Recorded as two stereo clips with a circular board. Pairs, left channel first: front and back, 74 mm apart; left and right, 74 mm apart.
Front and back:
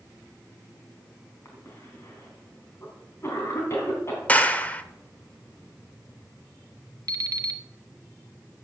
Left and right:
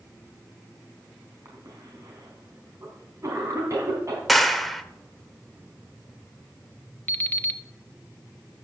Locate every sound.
1.4 s a cough: 50° right, 3 m
4.3 s a clap: straight ahead, 1.1 m
7.1 s an alarm clock: 150° left, 0.9 m